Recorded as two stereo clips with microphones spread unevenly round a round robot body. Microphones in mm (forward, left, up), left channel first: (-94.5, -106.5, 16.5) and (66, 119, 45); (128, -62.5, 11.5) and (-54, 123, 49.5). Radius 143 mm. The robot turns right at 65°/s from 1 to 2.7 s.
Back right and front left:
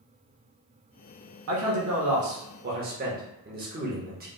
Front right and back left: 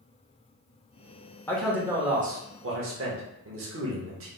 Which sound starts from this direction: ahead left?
A man speaking, at 1.5 s.